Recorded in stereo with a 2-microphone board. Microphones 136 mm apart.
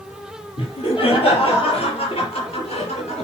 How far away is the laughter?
About 5 m.